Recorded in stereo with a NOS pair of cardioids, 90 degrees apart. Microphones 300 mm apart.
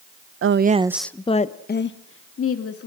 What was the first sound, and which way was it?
A woman speaking, 45° right.